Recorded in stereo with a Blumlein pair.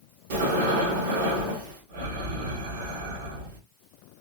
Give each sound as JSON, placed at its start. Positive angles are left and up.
{"t": 0.3, "sound": "breathing", "azimuth_deg": -55, "distance_m": 2.0}